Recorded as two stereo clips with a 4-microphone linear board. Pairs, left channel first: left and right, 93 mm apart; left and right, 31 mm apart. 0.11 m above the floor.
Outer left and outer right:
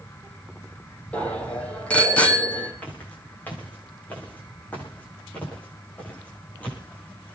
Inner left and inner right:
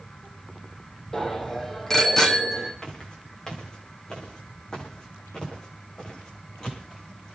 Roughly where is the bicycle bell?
Centre.